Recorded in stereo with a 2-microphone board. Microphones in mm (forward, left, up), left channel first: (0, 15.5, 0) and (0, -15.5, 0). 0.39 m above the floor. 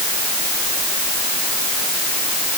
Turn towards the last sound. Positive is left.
No sound to turn to.